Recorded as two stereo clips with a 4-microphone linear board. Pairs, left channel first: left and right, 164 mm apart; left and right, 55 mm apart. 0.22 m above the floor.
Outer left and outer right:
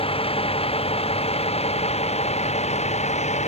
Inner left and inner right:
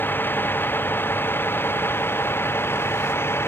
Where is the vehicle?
35° left (ahead or behind); by 3.5 s 45° left (ahead or behind).